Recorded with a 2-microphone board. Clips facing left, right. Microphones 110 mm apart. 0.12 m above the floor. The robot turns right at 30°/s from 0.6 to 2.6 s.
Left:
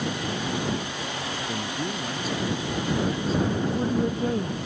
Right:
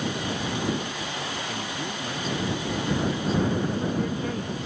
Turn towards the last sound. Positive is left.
turn(degrees=30)  # may be behind; listen again after turning